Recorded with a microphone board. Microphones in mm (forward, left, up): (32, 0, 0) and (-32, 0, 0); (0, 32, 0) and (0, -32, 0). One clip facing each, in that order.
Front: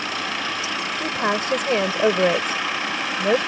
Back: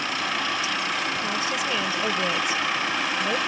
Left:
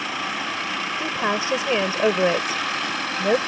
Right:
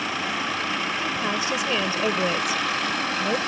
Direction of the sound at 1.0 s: 30° left.